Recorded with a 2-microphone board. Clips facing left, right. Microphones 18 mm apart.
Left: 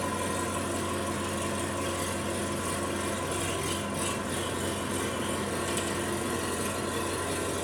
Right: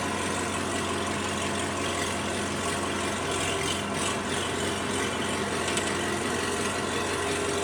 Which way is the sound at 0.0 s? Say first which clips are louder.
Right 2 dB; 40° right (ahead or behind).